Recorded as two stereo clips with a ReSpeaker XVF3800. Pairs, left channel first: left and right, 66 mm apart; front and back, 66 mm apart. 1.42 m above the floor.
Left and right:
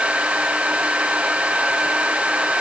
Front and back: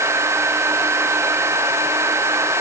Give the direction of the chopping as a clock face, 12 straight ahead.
No chopping in this recording.